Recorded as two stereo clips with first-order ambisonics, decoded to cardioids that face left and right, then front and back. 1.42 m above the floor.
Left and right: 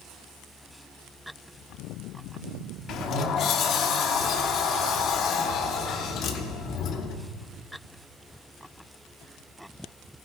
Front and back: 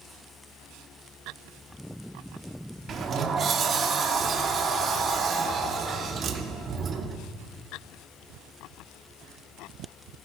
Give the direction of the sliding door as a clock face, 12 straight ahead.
8 o'clock.